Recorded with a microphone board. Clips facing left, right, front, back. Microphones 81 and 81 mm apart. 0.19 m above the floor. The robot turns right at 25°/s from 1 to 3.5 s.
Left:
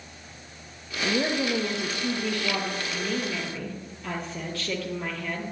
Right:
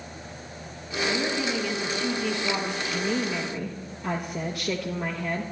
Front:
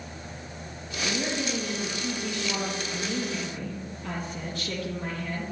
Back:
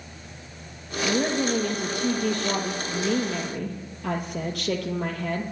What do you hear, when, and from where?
1.0 s a woman speaking: 135° left, 4.5 m; by 5.4 s 165° right, 4.5 m